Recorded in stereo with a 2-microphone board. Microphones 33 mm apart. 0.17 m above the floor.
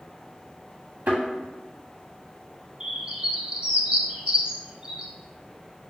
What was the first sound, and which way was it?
A thud, 85° right.